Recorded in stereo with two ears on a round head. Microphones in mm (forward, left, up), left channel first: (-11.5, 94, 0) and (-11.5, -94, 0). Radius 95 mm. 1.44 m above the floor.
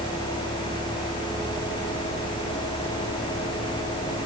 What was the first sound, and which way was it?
Only background noise.